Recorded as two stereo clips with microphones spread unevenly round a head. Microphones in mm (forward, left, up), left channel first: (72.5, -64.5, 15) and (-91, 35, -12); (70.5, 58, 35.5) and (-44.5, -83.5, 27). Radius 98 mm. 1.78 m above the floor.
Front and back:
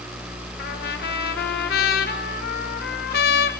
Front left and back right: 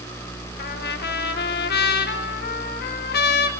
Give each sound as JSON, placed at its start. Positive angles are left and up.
{"t": 0.6, "sound": "a trumpet", "azimuth_deg": 15, "distance_m": 2.0}